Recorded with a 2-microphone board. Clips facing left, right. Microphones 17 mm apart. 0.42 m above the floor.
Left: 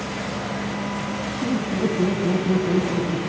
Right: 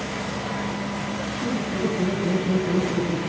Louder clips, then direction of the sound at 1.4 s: Left 3 dB; 65° left (ahead or behind).